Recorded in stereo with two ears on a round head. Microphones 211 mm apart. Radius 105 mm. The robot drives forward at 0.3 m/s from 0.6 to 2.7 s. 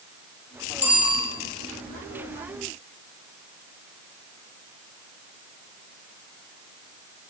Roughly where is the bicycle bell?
Centre.